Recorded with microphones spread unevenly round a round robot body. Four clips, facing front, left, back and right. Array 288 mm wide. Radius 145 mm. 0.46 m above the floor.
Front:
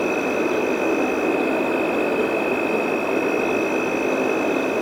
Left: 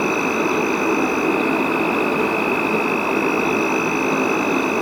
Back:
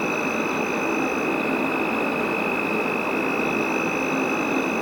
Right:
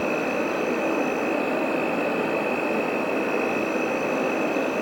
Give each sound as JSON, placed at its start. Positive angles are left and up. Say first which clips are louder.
{"t": 0.0, "sound": "an insect", "louder": "left 5 dB, front 4 dB", "azimuth_deg": 70, "distance_m": 0.8}